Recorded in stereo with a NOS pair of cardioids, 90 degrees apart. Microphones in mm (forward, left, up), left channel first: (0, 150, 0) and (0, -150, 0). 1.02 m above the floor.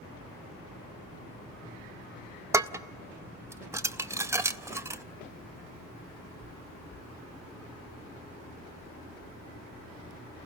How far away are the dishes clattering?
About 0.5 m.